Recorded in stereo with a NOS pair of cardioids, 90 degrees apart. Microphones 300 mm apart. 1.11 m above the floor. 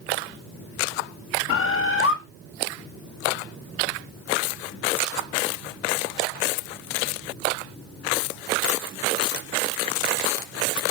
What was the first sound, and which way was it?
A bird, 50° left.